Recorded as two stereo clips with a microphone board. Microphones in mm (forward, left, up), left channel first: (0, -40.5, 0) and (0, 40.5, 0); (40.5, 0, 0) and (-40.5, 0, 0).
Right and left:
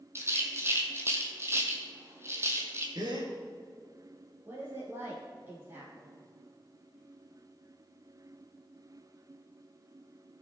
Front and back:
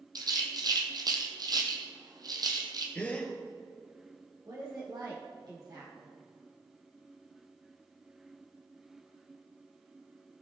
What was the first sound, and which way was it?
A rattle, 145° left.